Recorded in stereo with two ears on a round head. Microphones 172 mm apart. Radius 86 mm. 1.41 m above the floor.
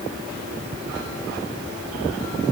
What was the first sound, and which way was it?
Only background noise.